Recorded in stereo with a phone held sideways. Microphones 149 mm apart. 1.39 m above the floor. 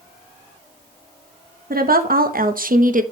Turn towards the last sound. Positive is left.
turn(degrees=-65)  # may be behind; listen again after turning